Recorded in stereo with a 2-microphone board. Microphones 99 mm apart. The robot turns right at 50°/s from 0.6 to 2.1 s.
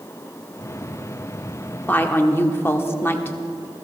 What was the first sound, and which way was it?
A woman speaking, 15° left (ahead or behind).